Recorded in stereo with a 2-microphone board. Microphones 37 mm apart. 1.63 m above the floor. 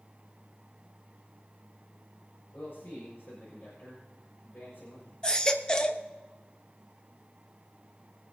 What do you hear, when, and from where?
2.5 s a man speaking: 65° left (ahead or behind), 6.5 m
5.2 s a baby crying: 25° left (ahead or behind), 1.0 m